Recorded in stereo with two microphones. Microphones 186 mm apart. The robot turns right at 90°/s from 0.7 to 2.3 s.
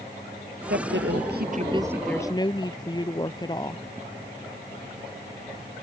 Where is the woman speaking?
120° right; by 3.8 s 25° left.